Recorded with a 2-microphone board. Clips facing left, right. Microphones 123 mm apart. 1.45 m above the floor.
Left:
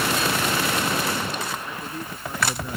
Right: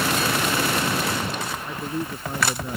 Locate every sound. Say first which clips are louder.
1.6 s a man speaking: right 4 dB; 20° right (ahead or behind); by 2.8 s 25° right (ahead or behind)